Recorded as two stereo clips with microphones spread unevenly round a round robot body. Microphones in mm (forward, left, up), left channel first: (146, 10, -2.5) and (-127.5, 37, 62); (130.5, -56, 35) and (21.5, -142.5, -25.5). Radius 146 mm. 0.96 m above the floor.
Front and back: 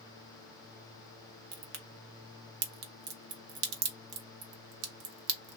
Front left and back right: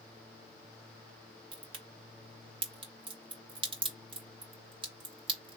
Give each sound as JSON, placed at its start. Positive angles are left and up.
{"t": 1.5, "sound": "a crack", "azimuth_deg": -150, "distance_m": 0.8}